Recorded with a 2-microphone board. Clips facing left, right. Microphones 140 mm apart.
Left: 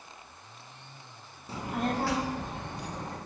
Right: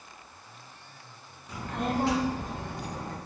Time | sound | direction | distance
1.5 | a child speaking | 30° left (ahead or behind) | 0.5 m